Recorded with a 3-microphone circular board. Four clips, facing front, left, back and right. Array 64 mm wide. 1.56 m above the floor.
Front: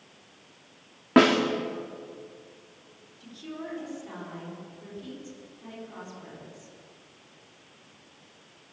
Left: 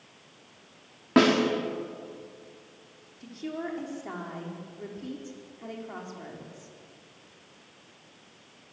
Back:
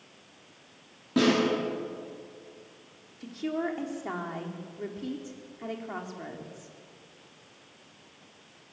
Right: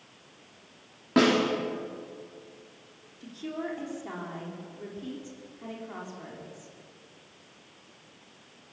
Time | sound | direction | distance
1.2 | a snare drum | 15° left | 4 m
3.2 | a woman speaking | 170° left | 4 m